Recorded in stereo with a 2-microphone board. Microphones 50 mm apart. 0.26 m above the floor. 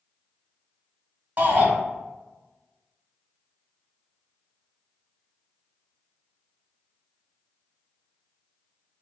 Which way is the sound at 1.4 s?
35° right (ahead or behind).